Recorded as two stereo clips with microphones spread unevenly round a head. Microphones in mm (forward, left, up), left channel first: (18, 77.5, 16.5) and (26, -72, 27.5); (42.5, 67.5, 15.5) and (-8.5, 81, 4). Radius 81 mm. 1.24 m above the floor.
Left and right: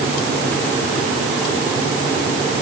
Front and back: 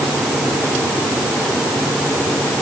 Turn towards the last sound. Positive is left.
No sound to turn to.